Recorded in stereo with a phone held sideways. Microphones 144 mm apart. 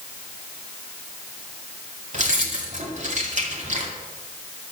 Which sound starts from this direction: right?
Keys jangling, at 2.1 s.